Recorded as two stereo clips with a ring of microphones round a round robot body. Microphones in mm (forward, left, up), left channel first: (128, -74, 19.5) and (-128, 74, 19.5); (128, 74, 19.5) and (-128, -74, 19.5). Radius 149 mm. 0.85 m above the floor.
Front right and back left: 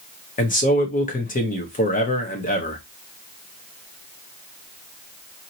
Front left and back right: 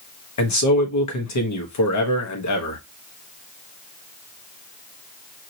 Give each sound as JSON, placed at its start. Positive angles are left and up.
{"t": 0.4, "sound": "a man speaking", "azimuth_deg": 30, "distance_m": 1.2}